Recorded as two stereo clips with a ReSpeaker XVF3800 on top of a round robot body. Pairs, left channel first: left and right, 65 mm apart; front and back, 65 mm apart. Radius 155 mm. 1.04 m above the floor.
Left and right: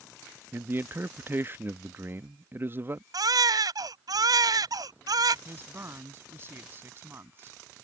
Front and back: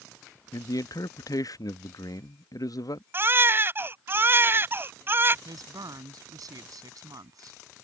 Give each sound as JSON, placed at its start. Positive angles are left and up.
{"t": 0.5, "sound": "a man speaking", "azimuth_deg": -30}
{"t": 3.1, "sound": "a baby crying", "azimuth_deg": -125}
{"t": 5.5, "sound": "a woman speaking", "azimuth_deg": -150}